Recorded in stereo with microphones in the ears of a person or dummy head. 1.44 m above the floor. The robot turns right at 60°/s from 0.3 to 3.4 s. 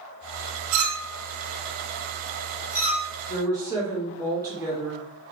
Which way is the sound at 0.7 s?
45° right (ahead or behind).